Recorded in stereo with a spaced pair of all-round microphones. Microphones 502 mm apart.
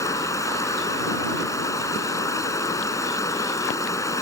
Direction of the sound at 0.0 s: 5° left (ahead or behind).